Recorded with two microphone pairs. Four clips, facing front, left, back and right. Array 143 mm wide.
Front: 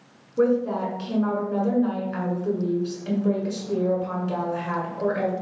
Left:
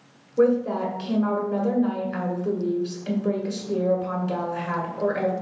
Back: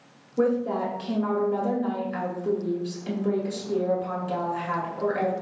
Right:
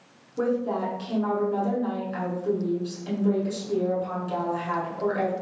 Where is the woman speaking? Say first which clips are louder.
Left 5 dB, front 2 dB; 70° left, 1.1 m.